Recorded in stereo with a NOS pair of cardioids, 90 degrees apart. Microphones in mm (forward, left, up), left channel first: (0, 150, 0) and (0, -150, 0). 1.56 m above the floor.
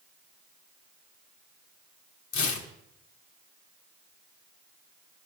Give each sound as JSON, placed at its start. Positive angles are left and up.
{"t": 2.3, "sound": "tearing paper", "azimuth_deg": 70, "distance_m": 1.6}